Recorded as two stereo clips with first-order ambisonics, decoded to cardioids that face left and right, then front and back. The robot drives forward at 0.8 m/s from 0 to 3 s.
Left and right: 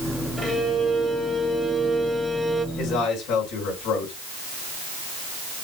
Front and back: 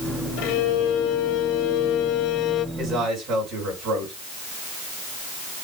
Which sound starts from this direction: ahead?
A violin, at 0.4 s.